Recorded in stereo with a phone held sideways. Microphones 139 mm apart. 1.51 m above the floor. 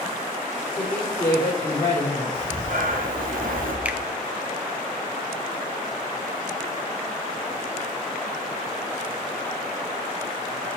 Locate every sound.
0.8 s a woman speaking: 15° left (ahead or behind), 3.5 m
2.3 s breathing: 75° right (ahead or behind), 0.9 m
3.9 s a finger snap: 10° right (ahead or behind), 0.5 m